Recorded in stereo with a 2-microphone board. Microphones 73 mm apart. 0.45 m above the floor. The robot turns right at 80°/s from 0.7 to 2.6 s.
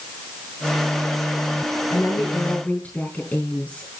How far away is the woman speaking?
About 4.5 m.